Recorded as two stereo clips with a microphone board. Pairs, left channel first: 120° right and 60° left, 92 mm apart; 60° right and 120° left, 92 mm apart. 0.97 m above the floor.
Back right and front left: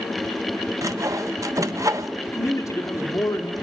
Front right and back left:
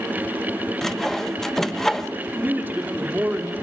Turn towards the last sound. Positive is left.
turn(degrees=-170)